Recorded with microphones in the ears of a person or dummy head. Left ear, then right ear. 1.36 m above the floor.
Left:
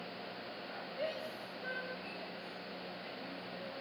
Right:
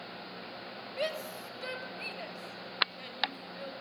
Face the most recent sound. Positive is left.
turn(degrees=-45)  # may be behind; listen again after turning